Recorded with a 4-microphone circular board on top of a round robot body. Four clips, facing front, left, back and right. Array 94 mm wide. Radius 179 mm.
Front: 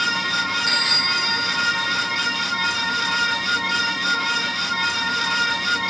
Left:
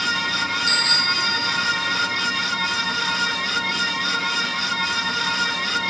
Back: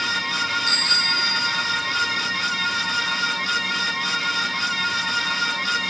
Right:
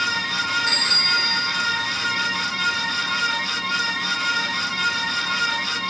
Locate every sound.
0.7 s a bicycle bell: 70° right, 7.5 m